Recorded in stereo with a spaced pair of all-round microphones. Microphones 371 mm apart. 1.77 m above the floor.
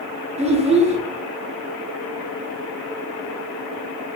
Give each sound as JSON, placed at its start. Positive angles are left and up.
{"t": 0.4, "sound": "a child speaking", "side_deg": -15, "distance_m": 0.6}